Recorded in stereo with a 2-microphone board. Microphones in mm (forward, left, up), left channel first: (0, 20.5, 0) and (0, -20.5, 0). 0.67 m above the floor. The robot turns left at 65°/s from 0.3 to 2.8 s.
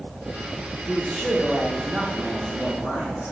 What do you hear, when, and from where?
0.9 s a man speaking: 10° left, 3 m; by 3.3 s 120° right, 3 m